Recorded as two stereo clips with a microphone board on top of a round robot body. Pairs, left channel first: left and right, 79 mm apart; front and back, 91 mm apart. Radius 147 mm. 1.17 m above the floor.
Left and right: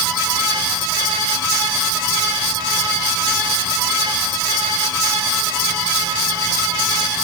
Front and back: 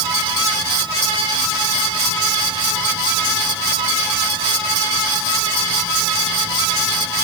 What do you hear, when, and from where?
Only background noise.